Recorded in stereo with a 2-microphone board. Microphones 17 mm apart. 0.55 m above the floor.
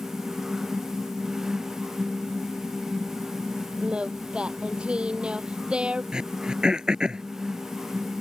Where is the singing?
85° right.